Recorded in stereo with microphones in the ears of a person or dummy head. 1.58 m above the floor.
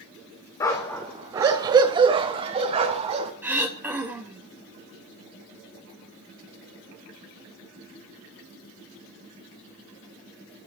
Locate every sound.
0.6 s a dog barking: 15° left (ahead or behind), 1.3 m; by 3.3 s 35° right (ahead or behind), 3.5 m
3.4 s throat clearing: 10° right (ahead or behind), 3.5 m